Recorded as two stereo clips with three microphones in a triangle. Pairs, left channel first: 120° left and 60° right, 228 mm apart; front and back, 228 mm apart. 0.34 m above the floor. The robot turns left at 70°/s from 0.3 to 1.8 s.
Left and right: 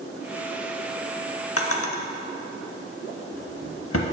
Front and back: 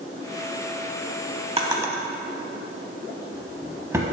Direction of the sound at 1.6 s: 120° left.